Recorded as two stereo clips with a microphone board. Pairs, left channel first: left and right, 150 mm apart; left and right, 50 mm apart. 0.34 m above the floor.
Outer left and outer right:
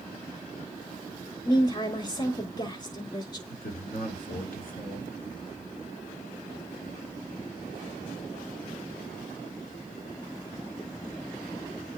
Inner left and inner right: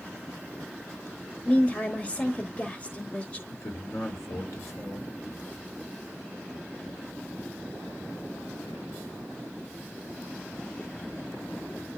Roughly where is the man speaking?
Left.